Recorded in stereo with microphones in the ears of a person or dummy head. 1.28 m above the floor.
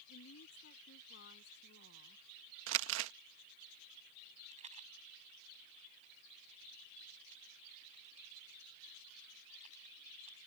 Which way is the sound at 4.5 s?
35° right (ahead or behind).